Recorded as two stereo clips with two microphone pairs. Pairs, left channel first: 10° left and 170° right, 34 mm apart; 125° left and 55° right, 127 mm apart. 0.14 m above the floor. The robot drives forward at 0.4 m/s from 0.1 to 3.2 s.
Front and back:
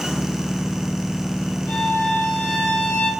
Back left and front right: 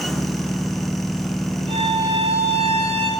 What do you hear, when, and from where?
1.7 s a violin: 20° right, 3.5 m; by 3.1 s 25° right, 3 m